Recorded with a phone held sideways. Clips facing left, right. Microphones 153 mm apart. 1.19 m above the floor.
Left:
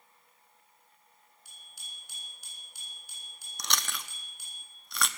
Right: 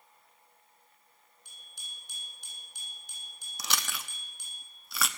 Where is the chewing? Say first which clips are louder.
Even; 5° right (ahead or behind), 0.8 m.